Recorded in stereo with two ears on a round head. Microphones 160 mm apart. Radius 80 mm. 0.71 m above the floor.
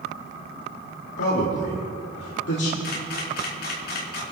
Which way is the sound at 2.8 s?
60° left (ahead or behind).